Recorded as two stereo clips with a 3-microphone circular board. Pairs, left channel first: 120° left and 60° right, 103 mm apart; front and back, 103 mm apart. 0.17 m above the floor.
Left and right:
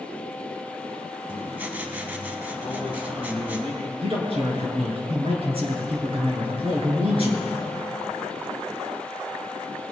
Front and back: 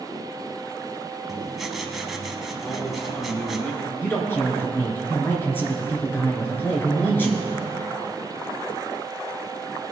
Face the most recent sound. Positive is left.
turn(degrees=-70)